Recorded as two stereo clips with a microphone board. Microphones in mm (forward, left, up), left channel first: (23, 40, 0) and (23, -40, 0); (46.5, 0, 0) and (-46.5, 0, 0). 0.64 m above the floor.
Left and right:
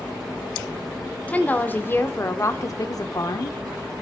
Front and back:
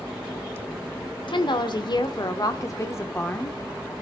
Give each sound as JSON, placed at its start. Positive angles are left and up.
{"t": 1.3, "sound": "a woman speaking", "azimuth_deg": 15, "distance_m": 1.9}